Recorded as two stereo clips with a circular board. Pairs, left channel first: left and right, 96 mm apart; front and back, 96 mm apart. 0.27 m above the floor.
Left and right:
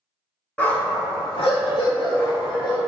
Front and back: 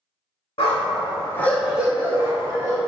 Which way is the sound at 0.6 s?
15° left.